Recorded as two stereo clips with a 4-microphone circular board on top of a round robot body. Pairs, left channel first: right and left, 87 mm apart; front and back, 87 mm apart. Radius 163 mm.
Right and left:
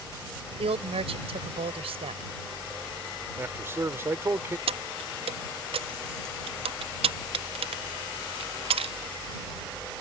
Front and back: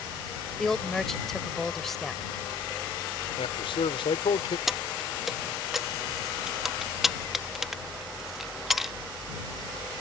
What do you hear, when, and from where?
0.6 s a woman speaking: 90° left
3.4 s a man speaking: 25° left
4.7 s keys jangling: 95° left